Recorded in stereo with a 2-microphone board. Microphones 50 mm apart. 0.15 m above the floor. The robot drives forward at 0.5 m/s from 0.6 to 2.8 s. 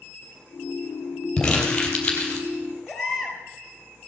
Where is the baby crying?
5° left (ahead or behind), 3 m.